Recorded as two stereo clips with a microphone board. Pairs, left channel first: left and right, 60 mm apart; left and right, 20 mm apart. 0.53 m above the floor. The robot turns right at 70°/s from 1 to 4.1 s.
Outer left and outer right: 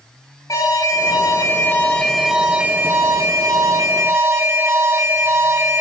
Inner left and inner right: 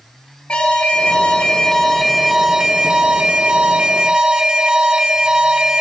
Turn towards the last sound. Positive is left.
turn(degrees=-55)